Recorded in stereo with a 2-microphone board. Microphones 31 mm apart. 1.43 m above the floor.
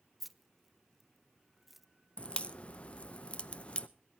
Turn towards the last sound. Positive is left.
turn(degrees=35)  # may be behind; listen again after turning